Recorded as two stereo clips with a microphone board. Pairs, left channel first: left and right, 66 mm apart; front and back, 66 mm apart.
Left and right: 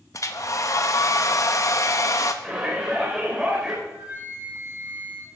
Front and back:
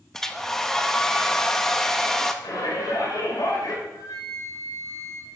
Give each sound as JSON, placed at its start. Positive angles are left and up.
{"t": 0.1, "sound": "a hair dryer", "azimuth_deg": 80, "distance_m": 1.1}
{"t": 2.4, "sound": "a shout", "azimuth_deg": -10, "distance_m": 4.5}
{"t": 3.8, "sound": "a flute", "azimuth_deg": -25, "distance_m": 3.5}